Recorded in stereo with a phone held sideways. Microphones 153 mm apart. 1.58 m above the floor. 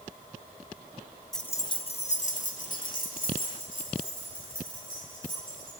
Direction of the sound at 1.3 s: Centre (ahead or behind).